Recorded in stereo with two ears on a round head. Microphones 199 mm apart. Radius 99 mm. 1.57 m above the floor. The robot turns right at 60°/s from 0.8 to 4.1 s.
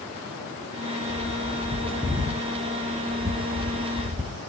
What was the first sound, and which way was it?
A bird, 30° left (ahead or behind).